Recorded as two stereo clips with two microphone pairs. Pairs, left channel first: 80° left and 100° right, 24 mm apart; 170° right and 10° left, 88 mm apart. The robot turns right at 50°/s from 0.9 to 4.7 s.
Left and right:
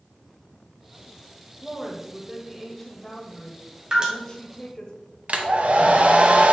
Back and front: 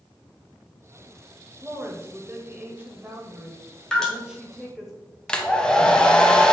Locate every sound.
1.6 s a woman speaking: 55° right, 1.0 m; by 4.9 s 100° left, 1.0 m
3.9 s dripping: 95° right, 1.6 m; by 4.1 s 90° right, 1.6 m
5.3 s a hair dryer: 90° right, 0.9 m